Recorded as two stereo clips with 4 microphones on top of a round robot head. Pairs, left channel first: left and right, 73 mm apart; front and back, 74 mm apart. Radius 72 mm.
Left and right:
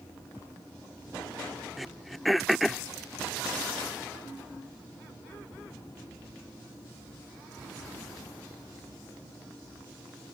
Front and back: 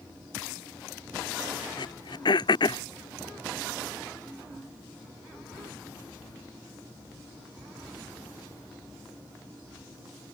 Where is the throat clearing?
Straight ahead.